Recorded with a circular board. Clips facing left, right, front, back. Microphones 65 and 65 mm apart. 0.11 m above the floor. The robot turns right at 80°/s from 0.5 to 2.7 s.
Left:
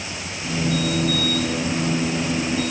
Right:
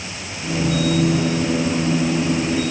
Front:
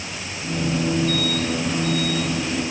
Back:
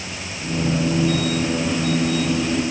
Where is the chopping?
I don't hear chopping.